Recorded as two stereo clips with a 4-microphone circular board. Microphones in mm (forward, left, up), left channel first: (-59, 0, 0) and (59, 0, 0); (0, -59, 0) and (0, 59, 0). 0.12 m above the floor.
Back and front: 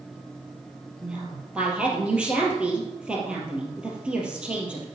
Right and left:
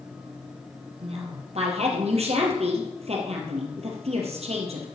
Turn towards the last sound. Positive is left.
turn(degrees=80)